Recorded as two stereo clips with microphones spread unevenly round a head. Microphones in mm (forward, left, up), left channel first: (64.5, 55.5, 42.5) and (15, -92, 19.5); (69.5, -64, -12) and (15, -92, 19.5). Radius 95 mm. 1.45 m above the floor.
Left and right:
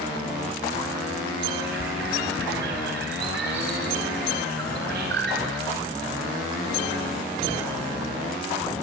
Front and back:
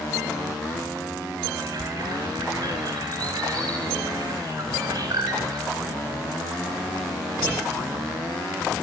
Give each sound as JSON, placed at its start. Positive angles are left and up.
{"t": 1.6, "sound": "a bird", "azimuth_deg": -135, "distance_m": 4.5}